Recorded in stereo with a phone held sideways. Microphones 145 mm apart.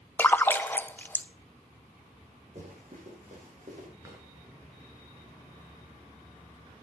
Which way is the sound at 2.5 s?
50° right (ahead or behind).